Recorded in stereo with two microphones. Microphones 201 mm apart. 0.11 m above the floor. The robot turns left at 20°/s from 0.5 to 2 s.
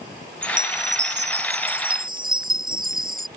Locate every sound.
0.4 s a chime: 105° right; by 3.3 s 135° right